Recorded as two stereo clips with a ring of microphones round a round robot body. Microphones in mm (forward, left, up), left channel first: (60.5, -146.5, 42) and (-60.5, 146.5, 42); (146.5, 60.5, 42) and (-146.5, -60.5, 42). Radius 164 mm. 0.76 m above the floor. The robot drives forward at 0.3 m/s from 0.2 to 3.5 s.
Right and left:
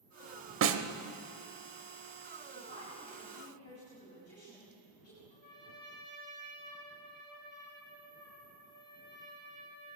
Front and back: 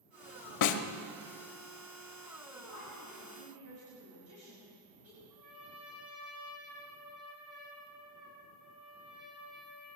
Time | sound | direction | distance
0.6 | a snare drum | 60° left | 0.8 m
2.5 | a woman speaking | 110° right | 6.5 m
5.3 | a trumpet | 125° right | 5.5 m